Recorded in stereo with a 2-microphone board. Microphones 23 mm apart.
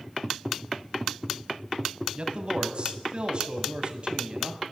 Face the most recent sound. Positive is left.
turn(degrees=-40)  # may be behind; listen again after turning